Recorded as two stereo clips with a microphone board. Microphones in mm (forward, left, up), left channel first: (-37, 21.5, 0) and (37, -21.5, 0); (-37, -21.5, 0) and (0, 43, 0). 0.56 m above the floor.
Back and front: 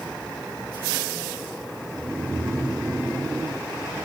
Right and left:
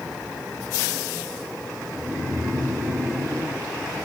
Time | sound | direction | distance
1.9 | snoring | 20° left | 2.5 m